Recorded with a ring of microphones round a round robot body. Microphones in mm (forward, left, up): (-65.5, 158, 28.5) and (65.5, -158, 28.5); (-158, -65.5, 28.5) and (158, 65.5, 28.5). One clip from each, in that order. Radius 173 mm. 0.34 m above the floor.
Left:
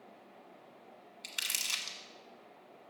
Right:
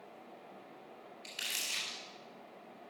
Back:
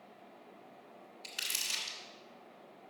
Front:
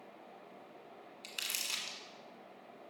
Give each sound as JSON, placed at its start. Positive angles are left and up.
{"t": 1.2, "sound": "crumpling", "azimuth_deg": 100, "distance_m": 1.6}